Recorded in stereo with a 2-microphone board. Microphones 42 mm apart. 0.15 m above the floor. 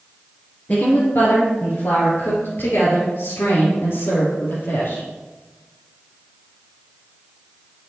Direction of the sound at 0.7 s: 50° left (ahead or behind).